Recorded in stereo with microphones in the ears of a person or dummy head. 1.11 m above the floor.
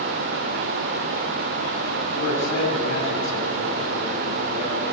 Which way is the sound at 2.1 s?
55° left (ahead or behind).